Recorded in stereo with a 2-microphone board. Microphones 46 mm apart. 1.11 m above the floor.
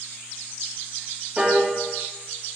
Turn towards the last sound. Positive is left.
turn(degrees=-20)  # may be behind; listen again after turning